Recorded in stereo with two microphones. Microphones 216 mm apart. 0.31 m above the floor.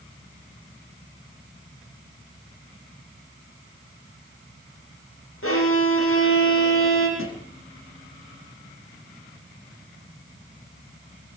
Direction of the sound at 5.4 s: 85° left.